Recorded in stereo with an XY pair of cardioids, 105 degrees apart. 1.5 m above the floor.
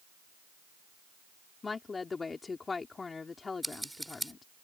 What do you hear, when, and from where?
1.6 s a woman speaking: 30° left
3.6 s scissors: 10° right